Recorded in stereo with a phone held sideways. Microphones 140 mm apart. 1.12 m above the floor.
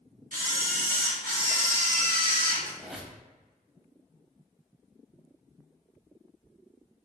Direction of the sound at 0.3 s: 85° right.